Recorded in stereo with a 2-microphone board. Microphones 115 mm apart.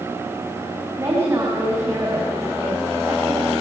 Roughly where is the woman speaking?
Right.